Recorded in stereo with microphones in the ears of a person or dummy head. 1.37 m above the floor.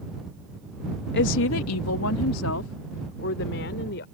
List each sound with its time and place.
1.1 s a woman speaking: 55° left (ahead or behind); by 4.0 s 60° left (ahead or behind)